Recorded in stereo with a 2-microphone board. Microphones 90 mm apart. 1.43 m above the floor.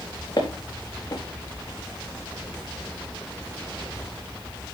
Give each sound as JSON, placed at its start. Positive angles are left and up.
{"t": 0.4, "sound": "footsteps", "side_deg": 40, "distance_m": 4.5}